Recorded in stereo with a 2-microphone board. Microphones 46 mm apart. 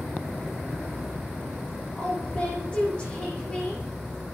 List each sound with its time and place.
1.9 s a woman speaking: 20° left (ahead or behind), 10 m